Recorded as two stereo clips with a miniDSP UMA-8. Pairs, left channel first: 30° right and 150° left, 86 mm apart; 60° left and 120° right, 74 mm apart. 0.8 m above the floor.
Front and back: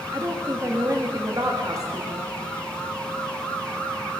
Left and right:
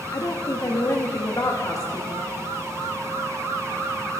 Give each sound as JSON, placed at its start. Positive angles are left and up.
{"t": 0.1, "sound": "a woman speaking", "azimuth_deg": 100, "distance_m": 0.8}